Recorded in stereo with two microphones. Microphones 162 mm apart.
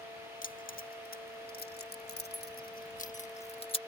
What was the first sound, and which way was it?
Keys jangling, 60° left (ahead or behind).